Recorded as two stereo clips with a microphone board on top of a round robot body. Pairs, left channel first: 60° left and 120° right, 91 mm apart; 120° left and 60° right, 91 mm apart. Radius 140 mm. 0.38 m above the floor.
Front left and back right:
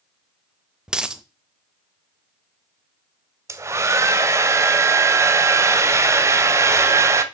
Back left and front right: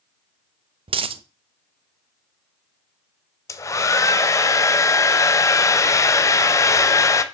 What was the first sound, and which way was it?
A dropped coin, 35° right.